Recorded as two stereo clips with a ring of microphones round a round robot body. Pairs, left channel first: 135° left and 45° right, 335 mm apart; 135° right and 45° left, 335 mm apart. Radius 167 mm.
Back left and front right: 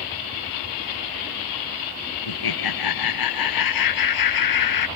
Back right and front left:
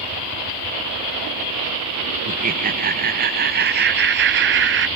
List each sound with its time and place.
2.3 s laughter: 110° left; by 4.9 s 100° left